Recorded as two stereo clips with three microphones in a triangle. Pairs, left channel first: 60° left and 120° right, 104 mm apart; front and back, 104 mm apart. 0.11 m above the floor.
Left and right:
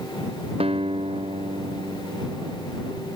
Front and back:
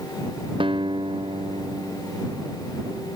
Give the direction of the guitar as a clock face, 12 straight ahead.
5 o'clock.